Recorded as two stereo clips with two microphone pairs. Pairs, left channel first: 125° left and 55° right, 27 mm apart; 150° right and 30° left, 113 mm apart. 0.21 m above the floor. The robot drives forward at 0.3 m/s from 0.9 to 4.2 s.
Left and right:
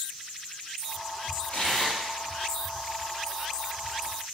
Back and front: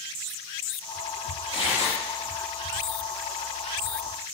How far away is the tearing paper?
About 5 m.